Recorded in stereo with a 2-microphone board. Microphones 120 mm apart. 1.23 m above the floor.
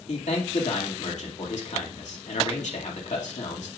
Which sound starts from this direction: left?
A man speaking, at 0.1 s.